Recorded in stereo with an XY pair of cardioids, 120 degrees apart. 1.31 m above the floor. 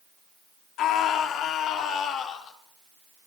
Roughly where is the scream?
Left.